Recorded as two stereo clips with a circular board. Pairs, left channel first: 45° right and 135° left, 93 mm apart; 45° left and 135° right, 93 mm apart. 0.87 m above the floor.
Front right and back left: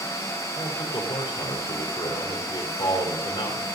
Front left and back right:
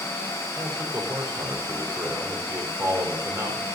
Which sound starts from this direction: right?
A man speaking, at 0.6 s.